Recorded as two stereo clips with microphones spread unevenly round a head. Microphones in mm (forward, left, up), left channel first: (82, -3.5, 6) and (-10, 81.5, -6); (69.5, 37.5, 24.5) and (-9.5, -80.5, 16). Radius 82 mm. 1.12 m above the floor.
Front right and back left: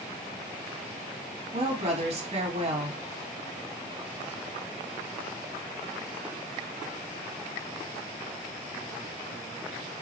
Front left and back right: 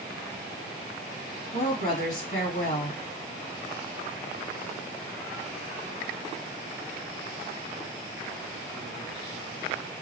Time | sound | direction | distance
1.5 | a woman speaking | 95° left | 1.5 m